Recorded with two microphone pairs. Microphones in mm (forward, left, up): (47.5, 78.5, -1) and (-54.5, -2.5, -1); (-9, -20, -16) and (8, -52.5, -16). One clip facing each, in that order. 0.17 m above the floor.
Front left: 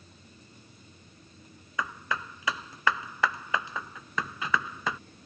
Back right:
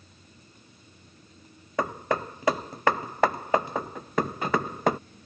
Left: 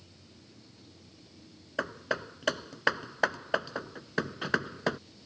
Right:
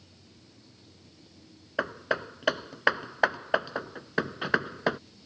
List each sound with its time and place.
1.8 s hammering: 130° right